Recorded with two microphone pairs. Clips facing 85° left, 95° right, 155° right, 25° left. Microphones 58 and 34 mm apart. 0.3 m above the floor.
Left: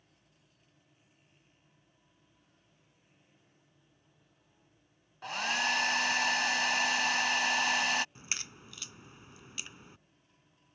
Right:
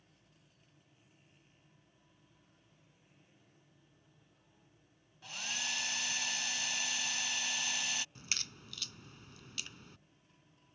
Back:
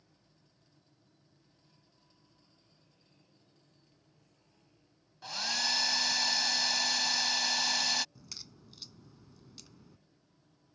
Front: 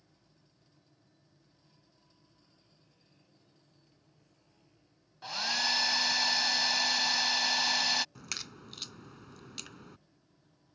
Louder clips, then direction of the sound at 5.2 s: Left 10 dB, front 2 dB; 105° left.